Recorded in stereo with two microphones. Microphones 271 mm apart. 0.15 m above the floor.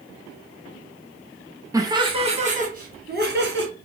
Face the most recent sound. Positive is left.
turn(degrees=-45)  # may be behind; listen again after turning